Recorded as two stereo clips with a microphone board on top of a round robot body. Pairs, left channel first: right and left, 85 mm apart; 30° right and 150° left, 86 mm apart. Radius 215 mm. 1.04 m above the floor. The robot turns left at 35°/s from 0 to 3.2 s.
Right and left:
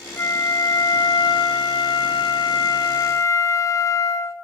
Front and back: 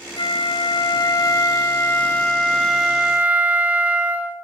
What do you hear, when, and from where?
0.2 s a flute: 30° right, 1.1 m; by 4.3 s 135° right, 1.1 m